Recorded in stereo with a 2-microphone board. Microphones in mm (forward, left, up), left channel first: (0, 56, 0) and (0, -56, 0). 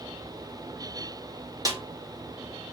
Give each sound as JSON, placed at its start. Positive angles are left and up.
{"t": 1.6, "sound": "a snare drum", "side_deg": -30, "distance_m": 2.5}